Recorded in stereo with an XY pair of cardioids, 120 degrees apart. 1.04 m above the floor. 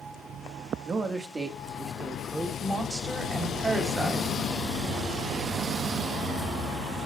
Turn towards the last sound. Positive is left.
turn(degrees=-20)